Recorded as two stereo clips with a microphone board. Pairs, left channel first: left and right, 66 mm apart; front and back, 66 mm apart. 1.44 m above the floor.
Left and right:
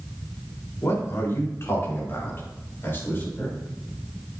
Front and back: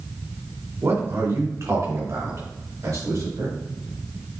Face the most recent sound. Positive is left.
turn(degrees=145)